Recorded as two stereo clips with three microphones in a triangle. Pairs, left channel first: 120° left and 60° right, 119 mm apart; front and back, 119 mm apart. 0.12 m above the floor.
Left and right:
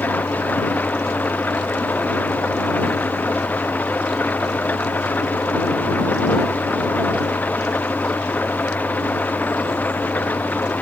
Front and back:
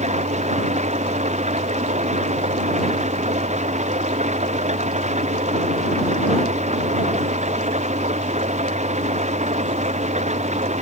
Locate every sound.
0.0 s an engine running: 165° right